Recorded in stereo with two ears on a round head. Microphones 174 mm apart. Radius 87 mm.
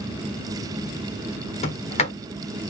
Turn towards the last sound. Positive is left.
turn(degrees=40)  # may be behind; listen again after turning